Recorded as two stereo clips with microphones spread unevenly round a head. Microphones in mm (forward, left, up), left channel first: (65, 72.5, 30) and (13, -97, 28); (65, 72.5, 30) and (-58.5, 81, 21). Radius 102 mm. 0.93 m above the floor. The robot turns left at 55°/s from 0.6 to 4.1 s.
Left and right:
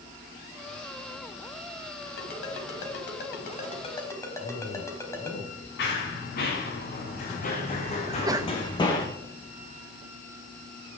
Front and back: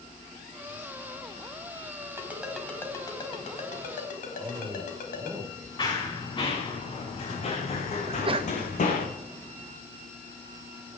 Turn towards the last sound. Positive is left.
turn(degrees=-170)